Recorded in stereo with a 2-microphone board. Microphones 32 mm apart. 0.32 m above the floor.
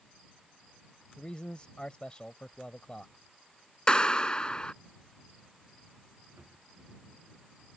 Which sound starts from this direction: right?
A drawer, at 6.4 s.